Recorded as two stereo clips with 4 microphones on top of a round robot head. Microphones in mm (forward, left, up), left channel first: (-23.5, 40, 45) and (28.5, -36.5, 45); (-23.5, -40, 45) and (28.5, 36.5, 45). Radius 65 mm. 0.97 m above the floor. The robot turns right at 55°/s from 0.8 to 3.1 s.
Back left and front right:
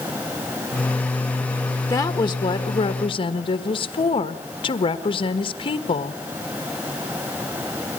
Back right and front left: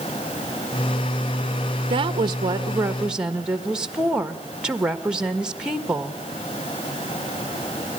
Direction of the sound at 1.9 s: 70° left.